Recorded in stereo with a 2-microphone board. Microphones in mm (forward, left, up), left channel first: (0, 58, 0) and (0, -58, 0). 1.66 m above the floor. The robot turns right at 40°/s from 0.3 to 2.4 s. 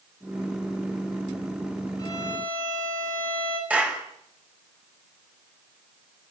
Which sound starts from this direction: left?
A violin, at 2.0 s.